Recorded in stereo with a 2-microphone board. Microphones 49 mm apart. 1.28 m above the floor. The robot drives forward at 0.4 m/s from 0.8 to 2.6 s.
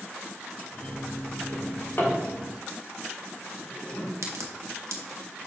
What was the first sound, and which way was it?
A drawer, 45° left (ahead or behind).